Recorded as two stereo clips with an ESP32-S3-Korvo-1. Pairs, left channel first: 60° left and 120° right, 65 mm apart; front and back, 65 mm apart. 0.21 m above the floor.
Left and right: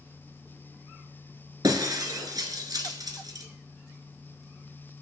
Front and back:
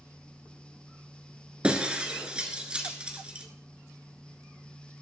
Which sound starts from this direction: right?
Breaking glass, at 1.6 s.